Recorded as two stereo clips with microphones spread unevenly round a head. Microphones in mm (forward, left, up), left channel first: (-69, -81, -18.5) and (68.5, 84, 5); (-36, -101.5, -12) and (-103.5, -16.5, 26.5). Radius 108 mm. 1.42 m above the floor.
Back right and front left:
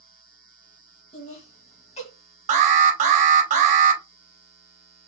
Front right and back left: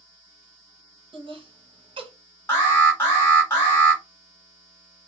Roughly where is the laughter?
Behind.